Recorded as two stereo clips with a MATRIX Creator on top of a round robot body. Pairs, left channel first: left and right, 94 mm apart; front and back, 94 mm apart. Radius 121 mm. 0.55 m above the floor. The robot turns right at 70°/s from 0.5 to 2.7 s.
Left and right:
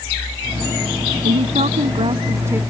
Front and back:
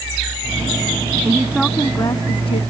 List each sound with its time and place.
1.2 s a woman speaking: 115° right; by 2.6 s 20° right